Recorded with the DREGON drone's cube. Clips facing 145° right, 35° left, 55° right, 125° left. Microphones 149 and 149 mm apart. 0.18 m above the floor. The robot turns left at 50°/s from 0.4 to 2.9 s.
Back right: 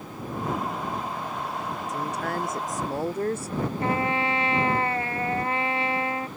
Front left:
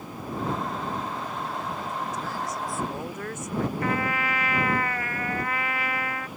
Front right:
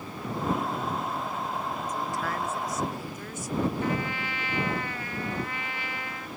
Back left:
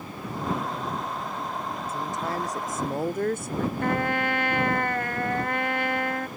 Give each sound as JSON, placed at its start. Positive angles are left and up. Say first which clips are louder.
{"t": 1.9, "sound": "a woman speaking", "louder": "back right 3 dB, back left 3 dB", "azimuth_deg": -155}
{"t": 3.8, "sound": "a trumpet", "louder": "back right 2 dB, back left 5 dB", "azimuth_deg": 155}